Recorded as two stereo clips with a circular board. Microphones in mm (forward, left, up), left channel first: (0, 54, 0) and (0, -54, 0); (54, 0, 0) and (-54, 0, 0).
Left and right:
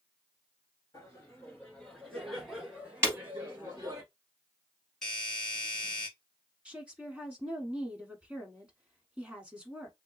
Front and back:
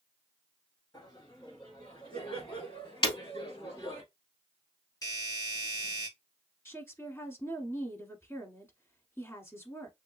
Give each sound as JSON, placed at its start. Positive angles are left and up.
{"t": 0.9, "sound": "laughter", "azimuth_deg": 40, "distance_m": 1.6}
{"t": 3.0, "sound": "breaking glass", "azimuth_deg": -25, "distance_m": 1.9}
{"t": 5.0, "sound": "a doorbell", "azimuth_deg": 10, "distance_m": 1.9}
{"t": 6.7, "sound": "a woman speaking", "azimuth_deg": -25, "distance_m": 1.1}